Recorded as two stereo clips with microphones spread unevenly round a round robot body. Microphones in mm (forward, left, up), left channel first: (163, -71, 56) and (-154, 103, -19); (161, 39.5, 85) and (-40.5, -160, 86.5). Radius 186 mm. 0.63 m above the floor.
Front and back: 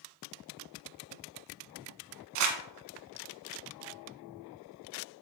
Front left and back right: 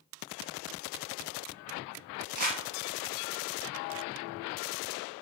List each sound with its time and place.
2.4 s crumpling: 160° left, 1.3 m